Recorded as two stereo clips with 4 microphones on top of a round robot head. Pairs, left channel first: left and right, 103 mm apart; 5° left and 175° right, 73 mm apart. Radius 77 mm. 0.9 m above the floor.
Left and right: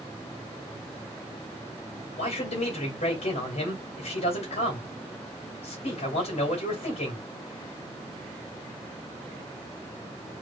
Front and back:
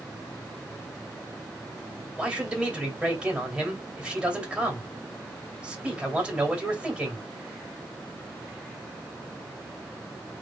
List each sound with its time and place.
2.2 s a man speaking: 110° left, 2.5 m